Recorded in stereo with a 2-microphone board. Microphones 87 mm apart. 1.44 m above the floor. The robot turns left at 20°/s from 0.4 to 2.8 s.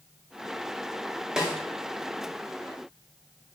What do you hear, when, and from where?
1.4 s a snare drum: 5° right (ahead or behind), 0.5 m